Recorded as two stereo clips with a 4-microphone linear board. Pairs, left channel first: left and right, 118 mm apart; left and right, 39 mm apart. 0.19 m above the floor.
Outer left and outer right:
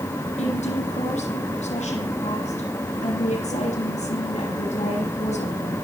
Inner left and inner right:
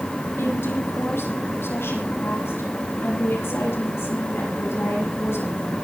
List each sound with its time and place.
0.4 s a woman speaking: 80° left, 9 m; by 5.8 s 75° left (ahead or behind), 11.5 m